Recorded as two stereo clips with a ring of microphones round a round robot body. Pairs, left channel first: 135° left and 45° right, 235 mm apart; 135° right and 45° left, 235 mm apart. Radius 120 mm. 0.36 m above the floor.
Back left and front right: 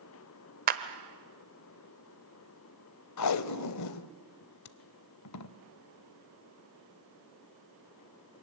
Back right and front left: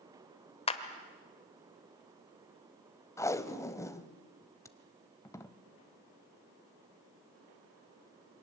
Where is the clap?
80° right, 1.3 m.